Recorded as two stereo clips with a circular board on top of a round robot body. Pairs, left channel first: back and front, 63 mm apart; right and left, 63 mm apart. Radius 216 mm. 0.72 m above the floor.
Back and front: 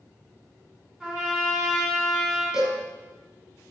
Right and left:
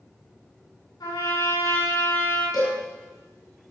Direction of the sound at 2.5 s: 80° right.